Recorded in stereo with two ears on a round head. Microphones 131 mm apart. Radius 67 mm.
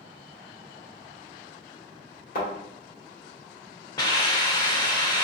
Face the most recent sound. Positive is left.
turn(degrees=30)  # may be behind; listen again after turning